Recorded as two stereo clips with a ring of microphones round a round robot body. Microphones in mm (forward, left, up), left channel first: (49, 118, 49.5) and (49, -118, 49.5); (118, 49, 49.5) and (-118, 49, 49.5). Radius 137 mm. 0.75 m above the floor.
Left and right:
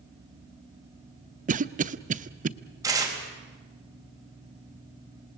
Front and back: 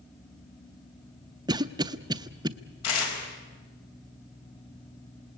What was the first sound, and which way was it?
A cough, 120° right.